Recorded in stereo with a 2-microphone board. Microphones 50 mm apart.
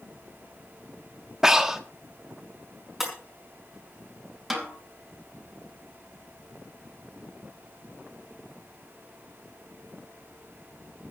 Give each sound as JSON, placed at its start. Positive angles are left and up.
{"t": 1.4, "sound": "breathing", "side_deg": -10, "distance_m": 1.3}
{"t": 3.0, "sound": "breaking glass", "side_deg": -5, "distance_m": 5.0}
{"t": 4.5, "sound": "a snare drum", "side_deg": -5, "distance_m": 4.5}